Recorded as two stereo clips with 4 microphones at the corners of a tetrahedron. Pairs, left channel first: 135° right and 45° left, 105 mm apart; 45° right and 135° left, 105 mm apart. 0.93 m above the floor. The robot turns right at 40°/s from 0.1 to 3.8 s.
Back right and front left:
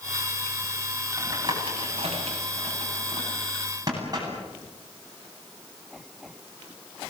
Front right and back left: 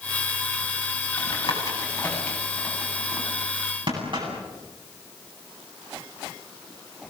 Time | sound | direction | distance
1.2 | tapping | 10° right | 9.5 m